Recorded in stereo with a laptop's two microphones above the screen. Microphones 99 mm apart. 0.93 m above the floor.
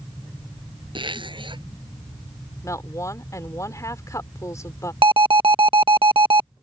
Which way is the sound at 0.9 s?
55° right (ahead or behind).